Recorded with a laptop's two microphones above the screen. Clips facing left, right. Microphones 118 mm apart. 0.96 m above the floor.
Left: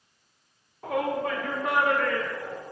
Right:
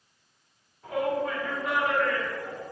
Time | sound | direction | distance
0.8 | a shout | 85° left | 1.9 m